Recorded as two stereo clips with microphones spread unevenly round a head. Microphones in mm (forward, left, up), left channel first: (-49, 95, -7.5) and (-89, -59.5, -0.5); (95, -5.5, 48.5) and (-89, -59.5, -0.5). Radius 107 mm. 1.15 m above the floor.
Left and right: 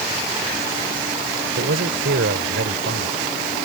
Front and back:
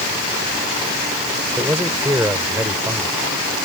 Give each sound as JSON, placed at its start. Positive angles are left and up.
{"t": 1.6, "sound": "a man speaking", "azimuth_deg": -85}